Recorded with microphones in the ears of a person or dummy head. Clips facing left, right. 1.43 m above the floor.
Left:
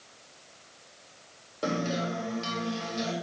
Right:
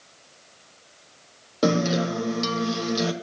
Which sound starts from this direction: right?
A guitar, at 1.6 s.